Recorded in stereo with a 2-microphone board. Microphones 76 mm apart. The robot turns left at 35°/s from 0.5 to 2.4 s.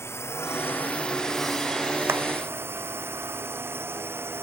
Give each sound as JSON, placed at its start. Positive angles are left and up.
{"t": 0.0, "sound": "a drone", "azimuth_deg": 35}
{"t": 2.1, "sound": "a clap", "side_deg": -35}